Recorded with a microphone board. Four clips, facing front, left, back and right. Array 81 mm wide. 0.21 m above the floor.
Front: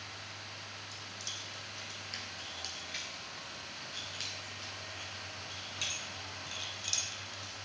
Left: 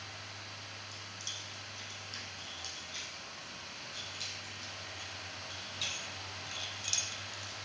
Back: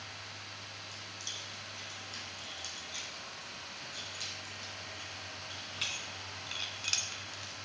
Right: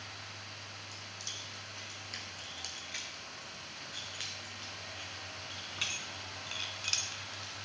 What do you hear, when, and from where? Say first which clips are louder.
0.9 s keys jangling: even, even; 50° right, 3.5 m; by 7.7 s 160° right, 1.6 m